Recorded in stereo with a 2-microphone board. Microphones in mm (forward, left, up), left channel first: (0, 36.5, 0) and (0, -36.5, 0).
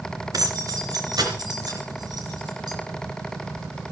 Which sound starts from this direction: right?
Keys jangling, at 0.3 s.